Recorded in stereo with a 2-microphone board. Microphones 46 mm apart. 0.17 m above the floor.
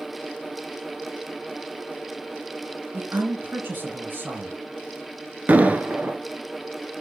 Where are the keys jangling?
No keys jangling in this recording.